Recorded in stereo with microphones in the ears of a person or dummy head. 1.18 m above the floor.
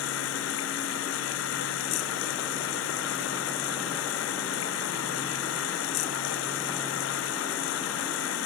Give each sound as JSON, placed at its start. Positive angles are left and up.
{"t": 0.0, "sound": "running water", "side_deg": 75}